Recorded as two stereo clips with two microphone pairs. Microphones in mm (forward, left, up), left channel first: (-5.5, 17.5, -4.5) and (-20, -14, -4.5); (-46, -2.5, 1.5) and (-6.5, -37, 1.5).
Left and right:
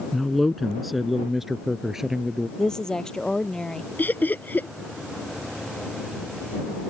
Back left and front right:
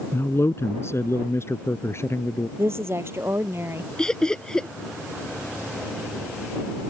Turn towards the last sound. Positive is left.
turn(degrees=65)